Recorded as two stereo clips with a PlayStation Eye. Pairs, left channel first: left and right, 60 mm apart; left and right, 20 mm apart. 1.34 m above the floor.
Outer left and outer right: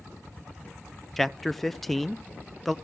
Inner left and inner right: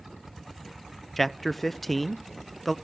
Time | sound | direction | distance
1.2 | a man speaking | 5° left (ahead or behind) | 0.5 m